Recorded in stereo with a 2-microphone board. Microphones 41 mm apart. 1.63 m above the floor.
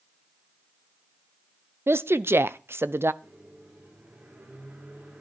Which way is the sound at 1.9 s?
85° right.